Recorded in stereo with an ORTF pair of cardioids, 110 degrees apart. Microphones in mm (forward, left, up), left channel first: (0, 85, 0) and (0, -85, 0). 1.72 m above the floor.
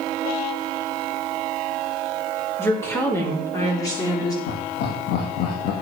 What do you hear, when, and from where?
2.6 s a woman speaking: 15° left, 5 m; by 4.4 s 25° left, 4 m
4.5 s laughter: 70° left, 2 m